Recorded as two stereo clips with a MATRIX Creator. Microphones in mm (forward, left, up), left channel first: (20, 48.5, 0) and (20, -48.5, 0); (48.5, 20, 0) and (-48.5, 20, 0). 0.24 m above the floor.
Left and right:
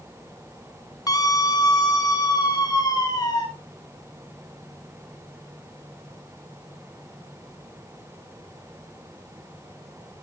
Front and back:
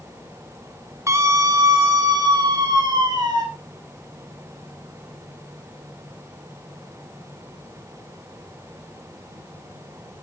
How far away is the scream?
About 1.5 m.